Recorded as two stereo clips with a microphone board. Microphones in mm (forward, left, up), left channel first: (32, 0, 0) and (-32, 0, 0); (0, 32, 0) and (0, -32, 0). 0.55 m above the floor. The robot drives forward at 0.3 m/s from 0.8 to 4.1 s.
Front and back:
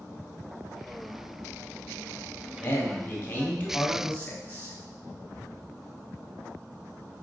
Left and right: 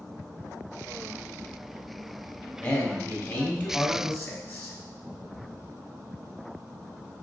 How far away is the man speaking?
About 1.9 m.